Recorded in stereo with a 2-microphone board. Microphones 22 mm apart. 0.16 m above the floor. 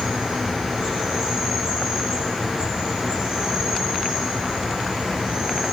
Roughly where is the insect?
Right.